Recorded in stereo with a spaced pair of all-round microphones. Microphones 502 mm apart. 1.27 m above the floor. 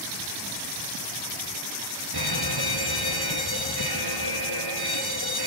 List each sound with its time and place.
2.1 s an alarm: 45° right (ahead or behind), 1.6 m